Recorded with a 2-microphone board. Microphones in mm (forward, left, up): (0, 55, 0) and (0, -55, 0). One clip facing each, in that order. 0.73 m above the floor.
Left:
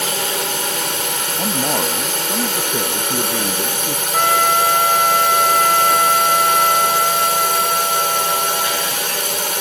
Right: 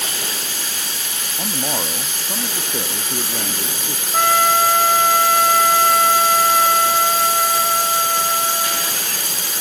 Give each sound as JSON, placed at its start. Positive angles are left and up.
{"t": 0.0, "sound": "a drone", "side_deg": 60}
{"t": 1.4, "sound": "a man speaking", "side_deg": 15}
{"t": 4.1, "sound": "a trumpet", "side_deg": 0}